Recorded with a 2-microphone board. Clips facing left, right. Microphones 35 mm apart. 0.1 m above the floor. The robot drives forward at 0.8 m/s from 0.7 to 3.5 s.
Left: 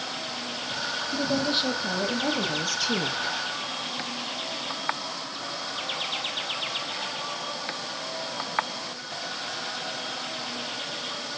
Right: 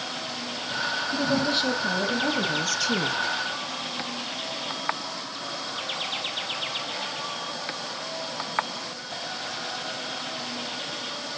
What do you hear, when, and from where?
1.1 s a woman speaking: 5° left (ahead or behind), 3.5 m; by 3.2 s 10° left (ahead or behind), 1.8 m